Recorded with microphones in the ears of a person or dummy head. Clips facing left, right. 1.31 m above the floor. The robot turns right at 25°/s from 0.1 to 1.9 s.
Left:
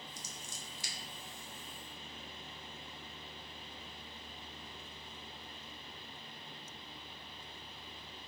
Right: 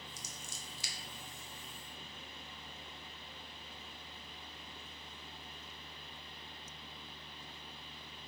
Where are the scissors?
55° right (ahead or behind), 0.6 m; by 0.9 s 50° right (ahead or behind), 0.6 m.